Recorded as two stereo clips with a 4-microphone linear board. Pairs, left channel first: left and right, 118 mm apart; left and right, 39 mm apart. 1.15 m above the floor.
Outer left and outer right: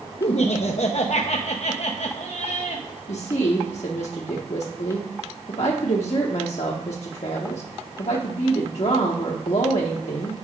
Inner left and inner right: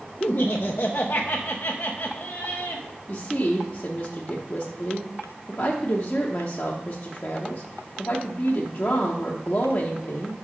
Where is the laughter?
65° left (ahead or behind), 0.6 m.